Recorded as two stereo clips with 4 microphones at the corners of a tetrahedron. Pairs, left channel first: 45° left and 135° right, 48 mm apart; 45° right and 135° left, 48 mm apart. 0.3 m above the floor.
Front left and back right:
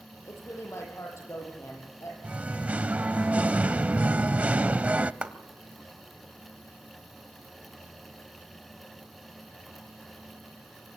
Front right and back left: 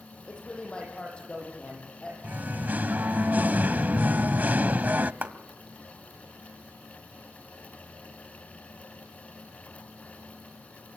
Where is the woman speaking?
25° left, 9.5 m.